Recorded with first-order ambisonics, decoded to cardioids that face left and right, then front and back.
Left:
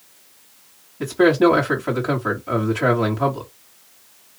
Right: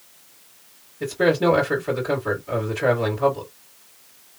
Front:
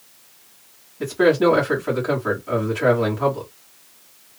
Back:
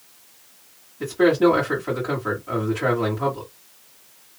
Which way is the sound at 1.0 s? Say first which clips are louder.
Left 4 dB, front 1 dB; 75° left.